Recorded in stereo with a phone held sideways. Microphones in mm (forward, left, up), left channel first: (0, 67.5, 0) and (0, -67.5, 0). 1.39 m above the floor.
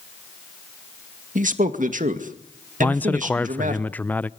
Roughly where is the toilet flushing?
I don't hear a toilet flushing.